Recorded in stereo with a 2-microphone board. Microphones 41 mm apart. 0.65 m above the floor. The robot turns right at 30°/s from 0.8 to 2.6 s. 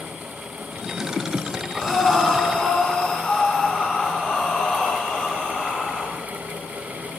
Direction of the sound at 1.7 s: Centre (ahead or behind).